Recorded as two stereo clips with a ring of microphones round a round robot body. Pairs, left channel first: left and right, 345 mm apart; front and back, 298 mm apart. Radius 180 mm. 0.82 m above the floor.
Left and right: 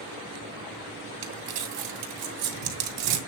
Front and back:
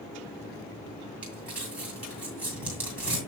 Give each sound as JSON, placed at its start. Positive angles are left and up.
{"t": 1.2, "sound": "crumpling", "azimuth_deg": -95, "distance_m": 3.0}